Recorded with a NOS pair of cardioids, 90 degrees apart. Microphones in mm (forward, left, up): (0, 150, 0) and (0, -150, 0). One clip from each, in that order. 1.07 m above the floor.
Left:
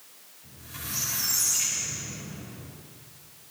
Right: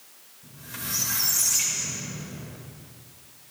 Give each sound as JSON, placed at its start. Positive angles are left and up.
{"t": 0.4, "sound": "a squeak", "azimuth_deg": -60, "distance_m": 3.0}